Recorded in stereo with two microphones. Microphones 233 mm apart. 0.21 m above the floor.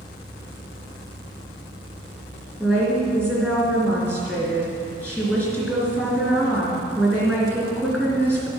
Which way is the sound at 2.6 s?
10° right (ahead or behind).